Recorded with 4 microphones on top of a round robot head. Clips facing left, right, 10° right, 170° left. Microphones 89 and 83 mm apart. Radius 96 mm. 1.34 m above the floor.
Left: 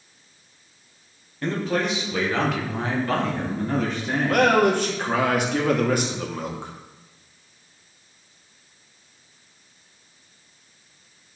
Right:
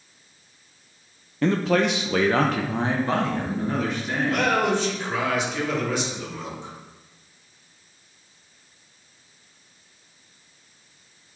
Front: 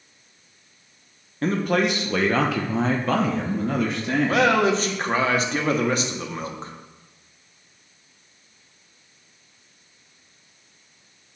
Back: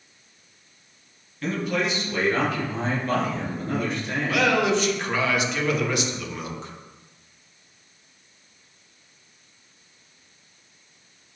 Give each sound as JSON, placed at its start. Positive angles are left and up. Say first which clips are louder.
{"t": 1.4, "sound": "a man speaking", "louder": "right 4 dB, front 4 dB", "azimuth_deg": -70, "distance_m": 1.1}
{"t": 4.3, "sound": "a man speaking", "louder": "left 5 dB, front 2 dB", "azimuth_deg": 45, "distance_m": 1.5}